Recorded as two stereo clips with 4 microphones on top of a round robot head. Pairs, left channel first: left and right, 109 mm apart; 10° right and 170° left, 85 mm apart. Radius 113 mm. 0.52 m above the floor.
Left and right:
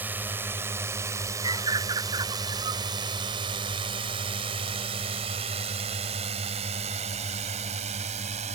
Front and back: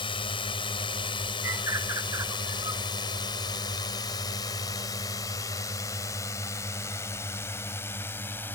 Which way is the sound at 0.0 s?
15° right.